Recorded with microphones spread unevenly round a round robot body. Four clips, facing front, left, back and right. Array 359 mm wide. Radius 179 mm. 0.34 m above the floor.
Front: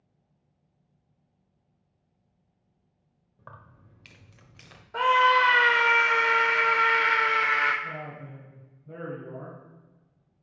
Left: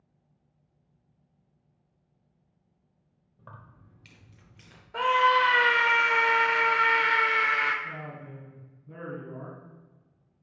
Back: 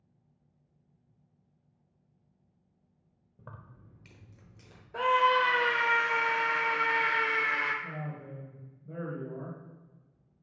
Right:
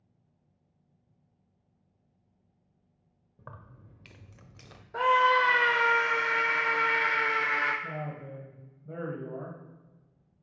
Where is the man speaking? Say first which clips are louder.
Right 2 dB, front 2 dB; 100° right, 2 m.